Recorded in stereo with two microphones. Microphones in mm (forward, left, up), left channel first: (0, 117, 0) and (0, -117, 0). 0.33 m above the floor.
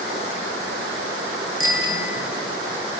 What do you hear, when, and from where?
1.6 s a bicycle bell: 65° right (ahead or behind), 5 m